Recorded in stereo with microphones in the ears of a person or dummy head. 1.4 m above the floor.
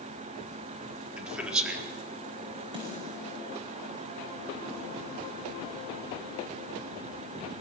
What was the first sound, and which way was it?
A man speaking, 5° right (ahead or behind).